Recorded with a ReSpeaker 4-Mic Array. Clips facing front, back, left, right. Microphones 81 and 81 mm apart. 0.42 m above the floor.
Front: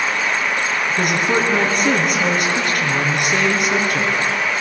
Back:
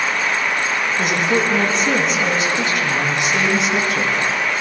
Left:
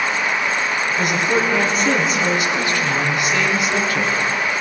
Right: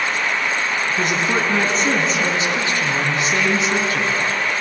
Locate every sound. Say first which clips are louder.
0.9 s a woman speaking: even, left 2 dB; 30° right, 5 m